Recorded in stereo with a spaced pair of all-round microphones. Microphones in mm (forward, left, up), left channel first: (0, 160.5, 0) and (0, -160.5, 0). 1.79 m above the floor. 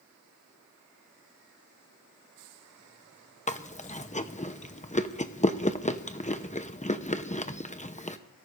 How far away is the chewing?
About 0.8 m.